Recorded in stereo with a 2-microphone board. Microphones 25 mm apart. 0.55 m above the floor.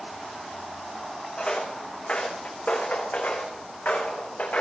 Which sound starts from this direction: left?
Footsteps, at 1.4 s.